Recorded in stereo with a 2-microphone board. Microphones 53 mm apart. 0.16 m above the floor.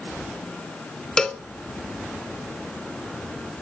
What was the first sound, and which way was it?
A cowbell, 10° left (ahead or behind).